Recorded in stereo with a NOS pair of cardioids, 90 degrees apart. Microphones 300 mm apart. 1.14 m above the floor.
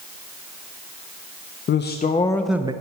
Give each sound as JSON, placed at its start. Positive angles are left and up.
{"t": 1.7, "sound": "a man speaking", "azimuth_deg": 40, "distance_m": 0.7}